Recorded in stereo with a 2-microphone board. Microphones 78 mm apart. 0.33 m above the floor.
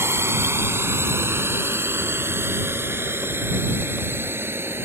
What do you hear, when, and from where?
0.0 s a drone: 30° right (ahead or behind)